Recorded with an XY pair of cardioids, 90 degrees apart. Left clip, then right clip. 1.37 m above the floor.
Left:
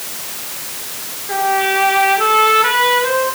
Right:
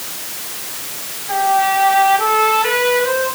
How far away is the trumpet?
About 8.5 m.